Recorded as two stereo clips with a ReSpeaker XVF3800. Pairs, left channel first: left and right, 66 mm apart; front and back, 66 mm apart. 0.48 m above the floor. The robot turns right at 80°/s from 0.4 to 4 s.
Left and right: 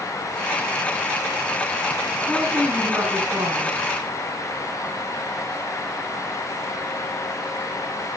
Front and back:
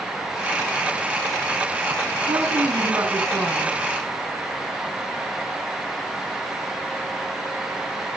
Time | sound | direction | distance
2.3 | a woman speaking | 170° left | 4 m